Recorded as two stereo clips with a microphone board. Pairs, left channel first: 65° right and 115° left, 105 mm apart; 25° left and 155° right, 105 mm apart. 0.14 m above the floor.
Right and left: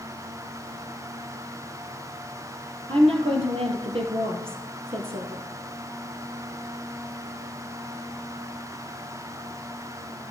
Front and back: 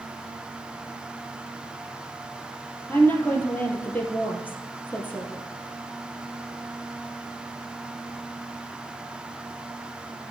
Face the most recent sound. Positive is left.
turn(degrees=95)